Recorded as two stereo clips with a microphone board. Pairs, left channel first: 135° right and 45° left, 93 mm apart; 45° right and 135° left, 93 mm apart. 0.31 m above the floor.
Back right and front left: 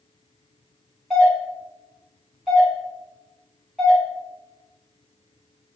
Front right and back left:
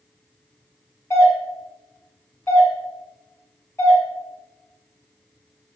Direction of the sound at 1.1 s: 45° right.